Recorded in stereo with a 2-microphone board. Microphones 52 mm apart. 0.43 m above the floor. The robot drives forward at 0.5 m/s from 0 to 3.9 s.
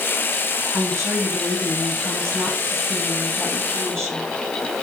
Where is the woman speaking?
70° right (ahead or behind), 3 m; by 4.3 s 60° right (ahead or behind), 3.5 m.